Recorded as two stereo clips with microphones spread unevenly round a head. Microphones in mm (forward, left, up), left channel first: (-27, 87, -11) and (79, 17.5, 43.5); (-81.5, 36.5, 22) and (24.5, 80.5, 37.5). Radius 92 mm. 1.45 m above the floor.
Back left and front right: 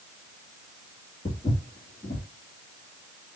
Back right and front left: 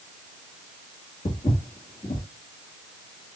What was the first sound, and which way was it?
Footsteps, 125° right.